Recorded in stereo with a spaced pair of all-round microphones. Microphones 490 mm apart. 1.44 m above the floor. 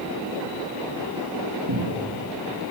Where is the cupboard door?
50° right (ahead or behind), 3 m.